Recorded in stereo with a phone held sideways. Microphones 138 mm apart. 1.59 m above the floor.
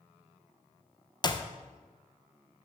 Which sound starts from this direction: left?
A clap, at 1.2 s.